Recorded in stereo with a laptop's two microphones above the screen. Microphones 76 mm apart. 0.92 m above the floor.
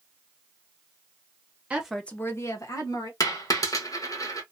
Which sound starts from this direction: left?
A dropped coin, at 3.2 s.